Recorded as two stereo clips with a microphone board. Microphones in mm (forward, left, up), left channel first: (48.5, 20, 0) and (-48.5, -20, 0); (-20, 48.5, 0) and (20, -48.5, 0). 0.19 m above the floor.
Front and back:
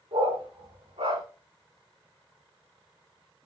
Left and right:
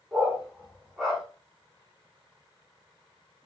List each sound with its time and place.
0.1 s a dog barking: 150° right, 9 m; by 1.2 s 155° right, 8 m